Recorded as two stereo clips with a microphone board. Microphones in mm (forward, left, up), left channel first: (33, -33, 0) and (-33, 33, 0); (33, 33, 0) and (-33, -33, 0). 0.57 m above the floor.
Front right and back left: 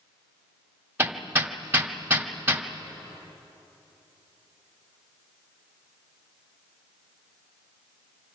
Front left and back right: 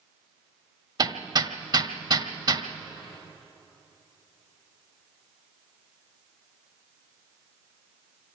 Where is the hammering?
160° right, 1.4 m.